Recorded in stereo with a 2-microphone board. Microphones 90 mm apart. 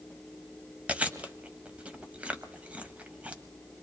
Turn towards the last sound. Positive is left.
turn(degrees=-15)  # may be behind; listen again after turning